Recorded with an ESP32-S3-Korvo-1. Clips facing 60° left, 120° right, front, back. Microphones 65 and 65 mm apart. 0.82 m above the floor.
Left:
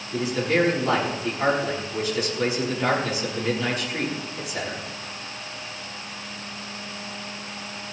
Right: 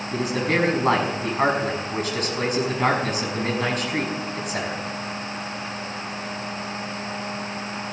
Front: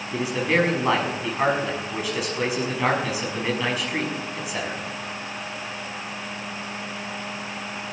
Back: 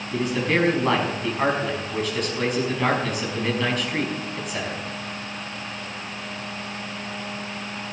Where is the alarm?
No alarm in this recording.